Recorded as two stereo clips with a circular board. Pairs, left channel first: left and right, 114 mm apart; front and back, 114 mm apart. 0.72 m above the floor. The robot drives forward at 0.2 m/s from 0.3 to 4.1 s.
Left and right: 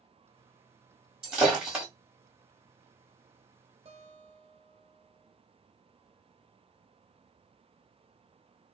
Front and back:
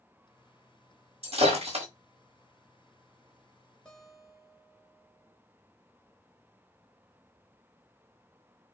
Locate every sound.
1.2 s breaking glass: 170° right, 1.2 m
3.9 s a guitar: 80° right, 0.7 m; by 5.4 s 85° right, 0.7 m